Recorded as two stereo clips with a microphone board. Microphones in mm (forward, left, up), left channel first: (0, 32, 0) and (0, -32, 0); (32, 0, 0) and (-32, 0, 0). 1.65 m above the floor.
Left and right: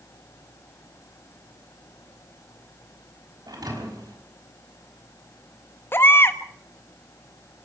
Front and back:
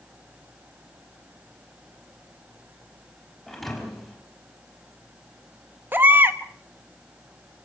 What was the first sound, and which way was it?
A thud, 90° right.